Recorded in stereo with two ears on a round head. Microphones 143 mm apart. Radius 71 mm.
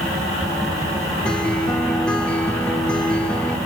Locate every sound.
1.2 s a guitar: 5° left (ahead or behind), 1.7 m